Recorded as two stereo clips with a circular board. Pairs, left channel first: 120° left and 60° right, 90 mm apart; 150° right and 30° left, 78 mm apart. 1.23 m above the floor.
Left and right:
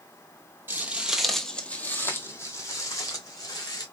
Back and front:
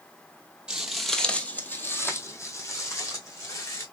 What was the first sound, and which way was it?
Footsteps, 35° right.